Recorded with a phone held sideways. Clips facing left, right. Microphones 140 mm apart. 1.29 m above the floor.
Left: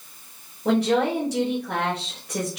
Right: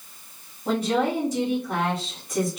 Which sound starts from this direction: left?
A woman speaking, at 0.7 s.